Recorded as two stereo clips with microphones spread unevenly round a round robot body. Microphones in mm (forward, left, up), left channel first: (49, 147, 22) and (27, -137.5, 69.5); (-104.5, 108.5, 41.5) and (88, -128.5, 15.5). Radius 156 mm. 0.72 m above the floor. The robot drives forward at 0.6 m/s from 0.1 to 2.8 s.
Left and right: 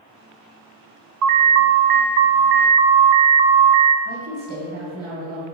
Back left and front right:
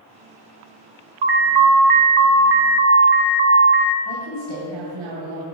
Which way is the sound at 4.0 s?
40° right.